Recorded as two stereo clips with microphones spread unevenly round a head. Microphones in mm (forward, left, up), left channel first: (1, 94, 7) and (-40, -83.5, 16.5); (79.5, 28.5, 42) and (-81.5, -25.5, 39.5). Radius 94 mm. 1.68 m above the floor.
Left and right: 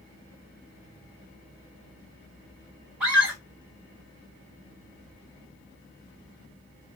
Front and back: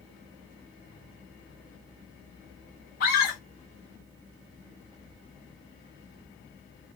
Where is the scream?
20° right, 1.5 m.